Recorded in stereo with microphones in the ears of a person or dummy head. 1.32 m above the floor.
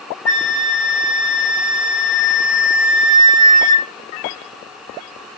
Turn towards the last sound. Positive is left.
turn(degrees=10)  # may be behind; listen again after turning